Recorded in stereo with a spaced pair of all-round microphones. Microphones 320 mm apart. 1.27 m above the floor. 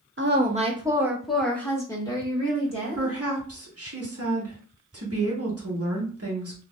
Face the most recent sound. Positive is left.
turn(degrees=-45)  # may be behind; listen again after turning